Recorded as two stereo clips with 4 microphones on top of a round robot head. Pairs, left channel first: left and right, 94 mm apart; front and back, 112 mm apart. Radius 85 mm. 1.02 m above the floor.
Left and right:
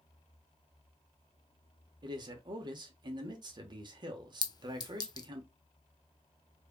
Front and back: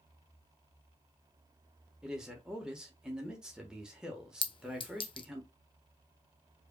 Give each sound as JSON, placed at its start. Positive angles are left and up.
{"t": 2.0, "sound": "a man speaking", "azimuth_deg": -95, "distance_m": 1.2}
{"t": 4.4, "sound": "a clink", "azimuth_deg": 45, "distance_m": 0.6}